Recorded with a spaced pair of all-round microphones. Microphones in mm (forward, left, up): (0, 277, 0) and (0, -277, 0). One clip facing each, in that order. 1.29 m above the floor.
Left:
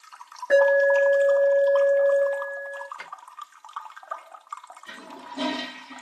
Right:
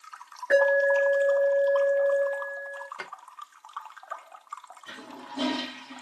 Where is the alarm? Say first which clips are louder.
Left 4 dB; 10° left (ahead or behind), 1.4 m.